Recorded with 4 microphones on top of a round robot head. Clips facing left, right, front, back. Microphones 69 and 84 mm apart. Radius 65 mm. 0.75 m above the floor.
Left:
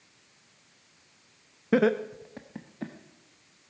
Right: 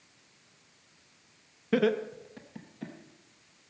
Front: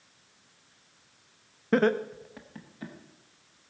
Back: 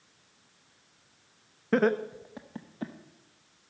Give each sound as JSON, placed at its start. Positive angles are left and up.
{"t": 1.7, "sound": "laughter", "azimuth_deg": 80, "distance_m": 0.6}